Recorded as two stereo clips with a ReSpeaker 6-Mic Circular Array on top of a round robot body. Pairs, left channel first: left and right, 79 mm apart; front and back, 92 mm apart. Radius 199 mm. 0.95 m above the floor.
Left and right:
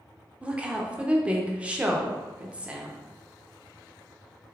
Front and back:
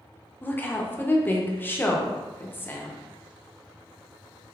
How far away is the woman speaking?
About 0.8 m.